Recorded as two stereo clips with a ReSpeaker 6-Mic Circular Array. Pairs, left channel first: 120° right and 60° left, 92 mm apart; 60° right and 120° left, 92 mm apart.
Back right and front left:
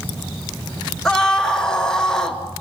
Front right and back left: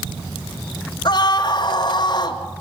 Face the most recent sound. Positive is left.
turn(degrees=-40)